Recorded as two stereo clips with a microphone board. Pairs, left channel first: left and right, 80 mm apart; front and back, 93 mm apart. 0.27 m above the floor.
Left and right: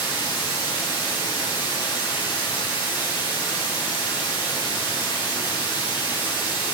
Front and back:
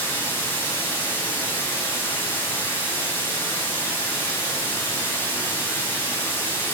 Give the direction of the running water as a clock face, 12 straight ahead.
10 o'clock.